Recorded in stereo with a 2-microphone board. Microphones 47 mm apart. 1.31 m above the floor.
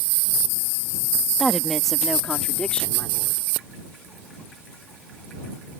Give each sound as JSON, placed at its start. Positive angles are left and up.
{"t": 1.4, "sound": "a woman speaking", "side_deg": -5}